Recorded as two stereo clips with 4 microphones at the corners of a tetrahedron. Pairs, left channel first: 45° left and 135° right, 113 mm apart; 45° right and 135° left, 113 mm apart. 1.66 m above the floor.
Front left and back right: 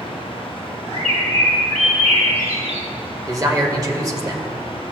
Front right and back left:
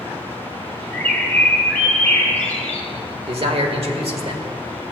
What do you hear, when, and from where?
0.9 s a bird: 115° right, 1.1 m
3.3 s a man speaking: 165° left, 1.2 m